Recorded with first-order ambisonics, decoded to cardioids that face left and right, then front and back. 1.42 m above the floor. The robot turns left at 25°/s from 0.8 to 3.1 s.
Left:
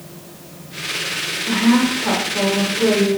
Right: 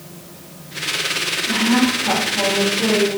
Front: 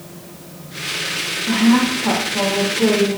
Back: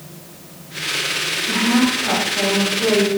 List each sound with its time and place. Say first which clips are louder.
1.5 s a woman speaking: left 1 dB, front 2 dB; 55° left, 1.3 m; by 3.2 s 15° left, 1.3 m